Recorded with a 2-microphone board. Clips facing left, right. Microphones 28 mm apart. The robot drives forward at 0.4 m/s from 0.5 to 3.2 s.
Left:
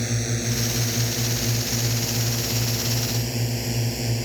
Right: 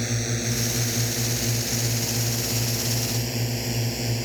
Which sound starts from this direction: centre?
A drone, at 0.0 s.